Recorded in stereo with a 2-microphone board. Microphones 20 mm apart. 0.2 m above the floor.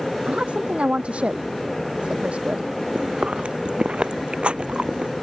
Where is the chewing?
60° right (ahead or behind).